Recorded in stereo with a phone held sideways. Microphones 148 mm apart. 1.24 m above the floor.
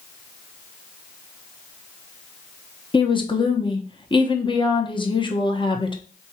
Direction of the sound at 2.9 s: 35° left (ahead or behind).